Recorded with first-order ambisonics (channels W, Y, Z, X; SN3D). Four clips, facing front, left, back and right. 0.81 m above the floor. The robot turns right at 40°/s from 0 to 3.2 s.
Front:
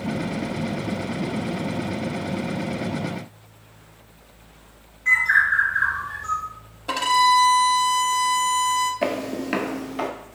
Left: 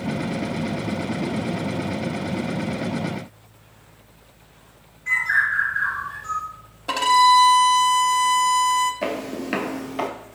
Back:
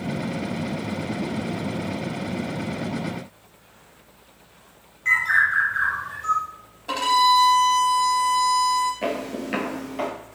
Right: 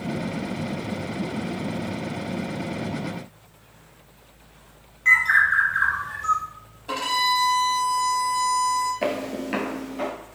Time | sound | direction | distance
5.0 | a bird | 110° right | 2.5 m
6.9 | a violin | 65° left | 0.7 m
9.0 | footsteps | 15° right | 0.8 m